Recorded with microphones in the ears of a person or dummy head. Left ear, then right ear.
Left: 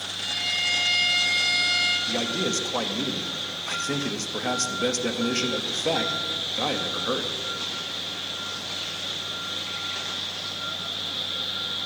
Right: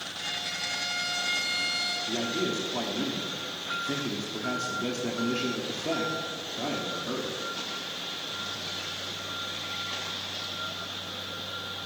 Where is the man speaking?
65° left (ahead or behind), 0.9 m.